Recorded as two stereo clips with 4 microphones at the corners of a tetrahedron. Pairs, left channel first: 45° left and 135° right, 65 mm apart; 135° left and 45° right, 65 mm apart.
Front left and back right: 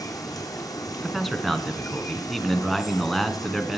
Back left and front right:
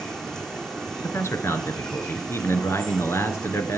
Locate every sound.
0.0 s running water: 55° left, 2.5 m
1.0 s a man speaking: 135° left, 1.4 m